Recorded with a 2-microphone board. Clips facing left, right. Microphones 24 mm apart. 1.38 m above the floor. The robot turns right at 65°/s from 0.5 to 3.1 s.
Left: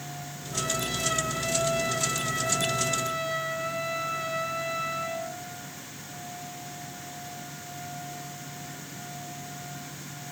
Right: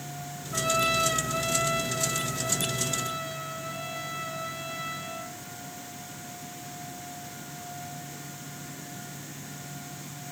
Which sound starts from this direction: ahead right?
A trumpet, at 0.5 s.